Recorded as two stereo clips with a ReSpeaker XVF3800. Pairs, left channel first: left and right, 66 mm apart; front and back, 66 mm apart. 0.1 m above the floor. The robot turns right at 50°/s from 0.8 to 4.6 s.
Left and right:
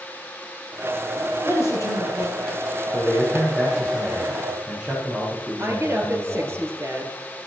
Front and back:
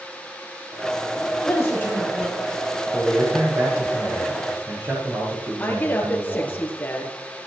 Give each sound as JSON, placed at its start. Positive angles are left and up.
{"t": 1.4, "sound": "a man speaking", "azimuth_deg": 40, "distance_m": 6.5}
{"t": 2.9, "sound": "a man speaking", "azimuth_deg": 120, "distance_m": 4.5}
{"t": 5.6, "sound": "a woman speaking", "azimuth_deg": -55, "distance_m": 2.0}